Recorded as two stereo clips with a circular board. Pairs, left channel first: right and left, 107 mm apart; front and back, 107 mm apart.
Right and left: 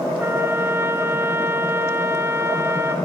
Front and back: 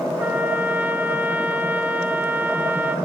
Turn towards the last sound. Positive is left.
turn(degrees=125)